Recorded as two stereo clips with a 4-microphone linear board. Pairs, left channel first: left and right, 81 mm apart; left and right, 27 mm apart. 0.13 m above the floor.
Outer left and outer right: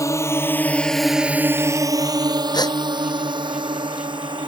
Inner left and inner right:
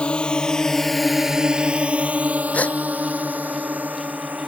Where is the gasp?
60° left (ahead or behind).